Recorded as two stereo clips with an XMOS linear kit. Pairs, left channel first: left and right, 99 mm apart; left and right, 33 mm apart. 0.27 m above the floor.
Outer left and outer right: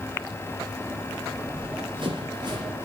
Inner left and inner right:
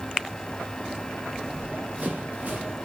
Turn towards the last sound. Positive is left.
turn(degrees=-50)  # may be behind; listen again after turning